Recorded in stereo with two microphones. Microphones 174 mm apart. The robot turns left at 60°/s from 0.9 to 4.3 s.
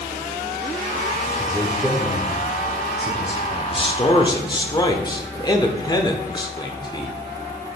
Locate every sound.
1.4 s a man speaking: 10° left, 1.0 m; by 3.9 s 140° right, 1.0 m
3.7 s a man speaking: 90° left, 0.8 m; by 7.2 s 50° left, 0.8 m